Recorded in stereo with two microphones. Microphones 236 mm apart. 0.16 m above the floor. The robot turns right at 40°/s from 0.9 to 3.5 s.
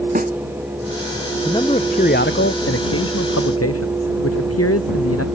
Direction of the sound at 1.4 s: 15° left.